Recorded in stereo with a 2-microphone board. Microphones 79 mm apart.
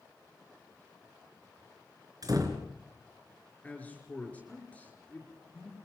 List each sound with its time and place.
2.2 s a door slam: 50° right (ahead or behind), 4 m
3.6 s a man speaking: 20° left (ahead or behind), 5.5 m